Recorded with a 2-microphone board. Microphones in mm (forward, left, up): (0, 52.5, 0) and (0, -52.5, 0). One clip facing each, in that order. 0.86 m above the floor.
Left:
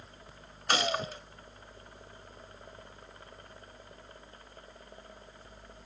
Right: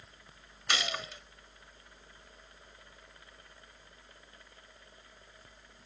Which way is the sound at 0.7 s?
40° left (ahead or behind).